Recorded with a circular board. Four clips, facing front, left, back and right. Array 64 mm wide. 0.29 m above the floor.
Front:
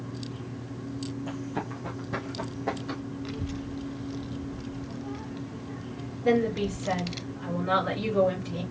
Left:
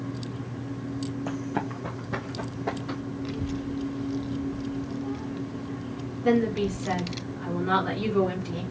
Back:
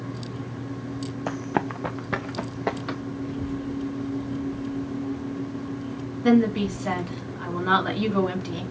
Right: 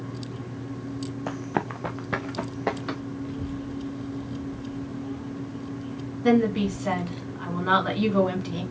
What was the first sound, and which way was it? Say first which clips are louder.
Running footsteps: right 4 dB, back 7 dB; 160° right.